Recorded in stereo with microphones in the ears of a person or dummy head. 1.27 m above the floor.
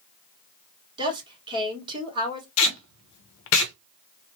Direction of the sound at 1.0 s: 25° right (ahead or behind).